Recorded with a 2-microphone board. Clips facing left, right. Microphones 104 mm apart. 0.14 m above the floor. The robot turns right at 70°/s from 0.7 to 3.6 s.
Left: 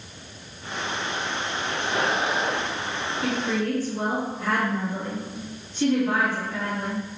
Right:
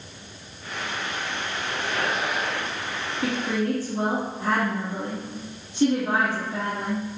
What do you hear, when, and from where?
3.2 s a woman speaking: 45° right (ahead or behind), 1.4 m; by 7.0 s 40° right (ahead or behind), 1.4 m